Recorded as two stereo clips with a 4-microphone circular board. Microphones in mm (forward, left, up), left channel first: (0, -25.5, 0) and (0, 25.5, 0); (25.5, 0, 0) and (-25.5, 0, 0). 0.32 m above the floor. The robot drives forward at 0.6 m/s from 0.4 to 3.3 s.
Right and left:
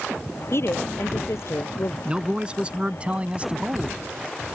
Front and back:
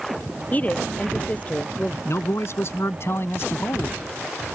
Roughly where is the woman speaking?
Ahead right.